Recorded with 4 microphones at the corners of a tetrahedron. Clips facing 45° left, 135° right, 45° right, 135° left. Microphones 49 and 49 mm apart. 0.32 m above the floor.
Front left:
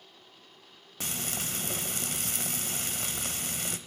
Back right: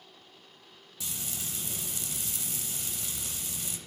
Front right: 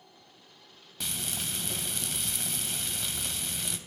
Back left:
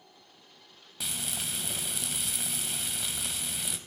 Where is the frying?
50° left, 0.8 m.